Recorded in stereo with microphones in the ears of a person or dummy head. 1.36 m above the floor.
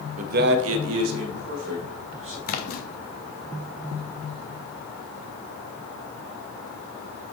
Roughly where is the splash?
Left.